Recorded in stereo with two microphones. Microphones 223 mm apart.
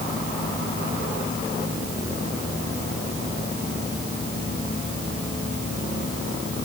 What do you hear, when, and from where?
Only background noise.